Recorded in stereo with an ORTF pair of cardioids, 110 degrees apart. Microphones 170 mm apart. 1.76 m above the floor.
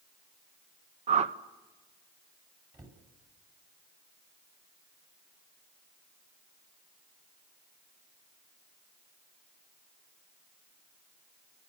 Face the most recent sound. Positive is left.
turn(degrees=-20)